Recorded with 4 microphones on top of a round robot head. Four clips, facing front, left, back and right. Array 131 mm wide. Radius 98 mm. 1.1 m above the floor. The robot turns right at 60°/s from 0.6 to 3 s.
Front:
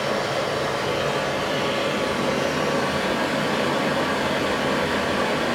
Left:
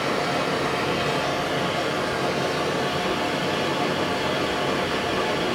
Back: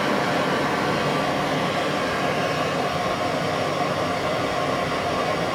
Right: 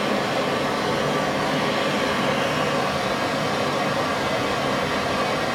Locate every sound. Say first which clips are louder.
0.0 s running water: right 1 dB, back 2 dB; 175° right, 1.5 m; by 5.5 s 30° right, 1.5 m